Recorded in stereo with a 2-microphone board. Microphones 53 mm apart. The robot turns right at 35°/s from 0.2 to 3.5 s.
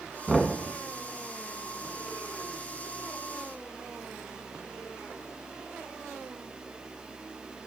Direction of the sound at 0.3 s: Centre (ahead or behind).